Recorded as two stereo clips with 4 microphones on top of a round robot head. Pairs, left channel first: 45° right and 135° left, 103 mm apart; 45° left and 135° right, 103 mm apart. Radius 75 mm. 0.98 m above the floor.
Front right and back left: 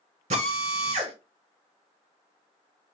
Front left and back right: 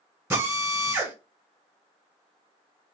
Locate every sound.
0.3 s a drill: 160° left, 2.5 m